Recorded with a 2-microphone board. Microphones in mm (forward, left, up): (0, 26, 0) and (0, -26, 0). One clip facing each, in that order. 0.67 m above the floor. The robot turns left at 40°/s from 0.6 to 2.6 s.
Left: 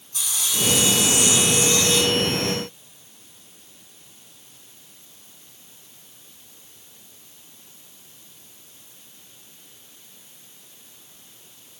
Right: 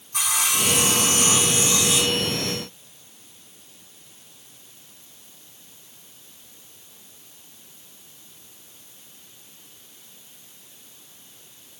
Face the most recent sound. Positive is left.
turn(degrees=170)